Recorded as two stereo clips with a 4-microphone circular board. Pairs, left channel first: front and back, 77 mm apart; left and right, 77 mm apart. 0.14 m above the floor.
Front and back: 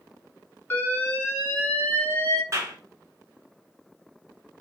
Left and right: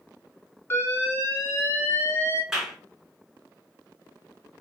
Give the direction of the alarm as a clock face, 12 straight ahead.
10 o'clock.